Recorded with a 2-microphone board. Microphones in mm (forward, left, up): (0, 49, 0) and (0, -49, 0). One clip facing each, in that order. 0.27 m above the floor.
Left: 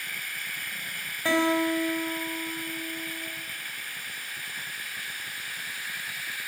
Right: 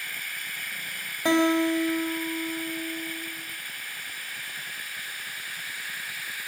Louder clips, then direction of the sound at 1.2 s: Right 2 dB; 20° right (ahead or behind).